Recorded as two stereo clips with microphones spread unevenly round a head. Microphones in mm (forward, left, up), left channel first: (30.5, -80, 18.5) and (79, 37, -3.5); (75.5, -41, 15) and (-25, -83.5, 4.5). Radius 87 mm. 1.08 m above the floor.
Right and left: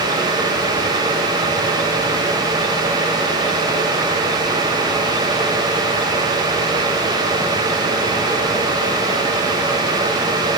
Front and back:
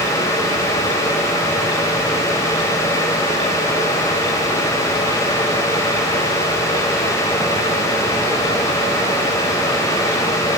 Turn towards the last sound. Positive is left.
No sound to turn to.